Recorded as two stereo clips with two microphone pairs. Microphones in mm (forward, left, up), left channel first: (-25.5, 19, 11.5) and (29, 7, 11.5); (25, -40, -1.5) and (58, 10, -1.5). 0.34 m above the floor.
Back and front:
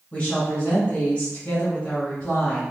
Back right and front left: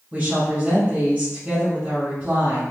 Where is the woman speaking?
110° left, 1.7 m.